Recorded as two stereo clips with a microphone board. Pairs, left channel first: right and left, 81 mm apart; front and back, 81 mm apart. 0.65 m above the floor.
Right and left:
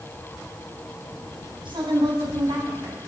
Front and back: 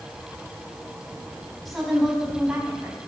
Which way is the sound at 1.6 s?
90° left.